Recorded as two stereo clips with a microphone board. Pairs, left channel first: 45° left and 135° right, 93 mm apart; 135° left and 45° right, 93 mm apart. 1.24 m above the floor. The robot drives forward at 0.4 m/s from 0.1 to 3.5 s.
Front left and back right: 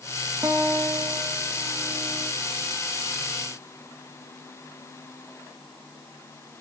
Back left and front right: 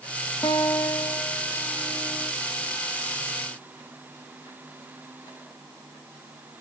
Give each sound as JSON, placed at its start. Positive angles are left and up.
{"t": 0.4, "sound": "a guitar", "azimuth_deg": 180, "distance_m": 1.0}